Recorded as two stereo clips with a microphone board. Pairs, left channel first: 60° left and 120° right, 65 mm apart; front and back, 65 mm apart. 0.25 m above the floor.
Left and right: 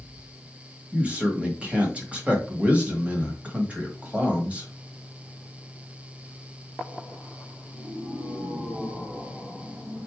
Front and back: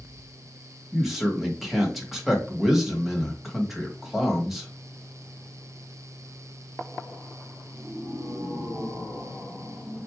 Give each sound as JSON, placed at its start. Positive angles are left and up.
{"t": 0.9, "sound": "a man speaking", "azimuth_deg": -95, "distance_m": 1.4}